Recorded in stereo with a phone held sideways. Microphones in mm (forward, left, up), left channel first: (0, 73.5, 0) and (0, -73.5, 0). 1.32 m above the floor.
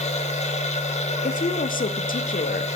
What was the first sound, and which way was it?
A machine running, 45° left (ahead or behind).